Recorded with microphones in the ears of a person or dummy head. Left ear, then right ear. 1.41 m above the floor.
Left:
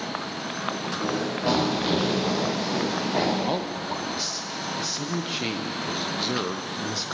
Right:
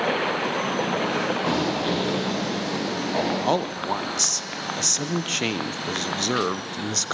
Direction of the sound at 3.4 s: 35° right (ahead or behind).